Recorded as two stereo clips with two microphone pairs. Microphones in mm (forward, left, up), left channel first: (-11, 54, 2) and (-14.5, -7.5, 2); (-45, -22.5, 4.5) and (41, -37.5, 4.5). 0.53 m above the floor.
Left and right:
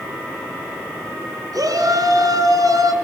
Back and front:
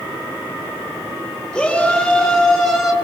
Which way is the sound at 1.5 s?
105° right.